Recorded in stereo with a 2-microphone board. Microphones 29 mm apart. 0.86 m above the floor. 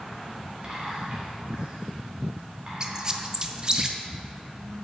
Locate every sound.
0.6 s whispering: 40° right (ahead or behind), 3 m
2.8 s a squeak: 25° right (ahead or behind), 0.5 m